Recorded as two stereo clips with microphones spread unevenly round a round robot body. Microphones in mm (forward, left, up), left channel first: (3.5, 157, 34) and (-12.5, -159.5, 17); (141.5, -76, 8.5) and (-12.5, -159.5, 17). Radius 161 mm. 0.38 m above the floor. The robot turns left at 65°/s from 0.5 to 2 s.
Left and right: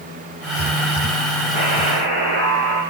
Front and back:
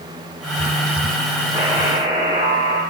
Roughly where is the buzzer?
Right.